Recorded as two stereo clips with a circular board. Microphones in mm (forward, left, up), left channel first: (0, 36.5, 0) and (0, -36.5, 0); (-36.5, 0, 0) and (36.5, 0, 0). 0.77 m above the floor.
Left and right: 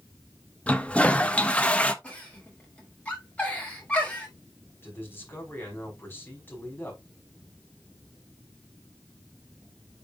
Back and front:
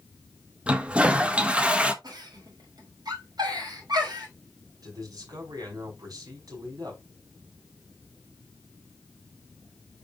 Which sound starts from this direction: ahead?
A giggle, at 2.0 s.